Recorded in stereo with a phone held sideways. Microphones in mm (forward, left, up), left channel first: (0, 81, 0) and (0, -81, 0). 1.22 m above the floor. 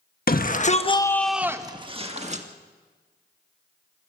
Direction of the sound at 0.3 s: 65° left (ahead or behind).